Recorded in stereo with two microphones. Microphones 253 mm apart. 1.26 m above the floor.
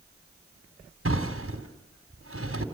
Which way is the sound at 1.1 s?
65° right (ahead or behind).